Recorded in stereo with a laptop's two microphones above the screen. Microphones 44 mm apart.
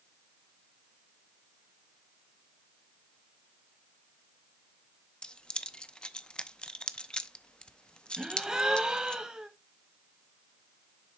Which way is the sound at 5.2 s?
20° left (ahead or behind).